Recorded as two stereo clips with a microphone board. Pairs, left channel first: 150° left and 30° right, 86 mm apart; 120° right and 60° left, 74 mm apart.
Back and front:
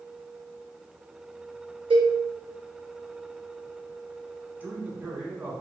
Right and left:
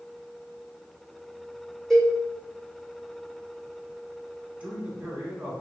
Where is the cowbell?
35° right, 1.8 m.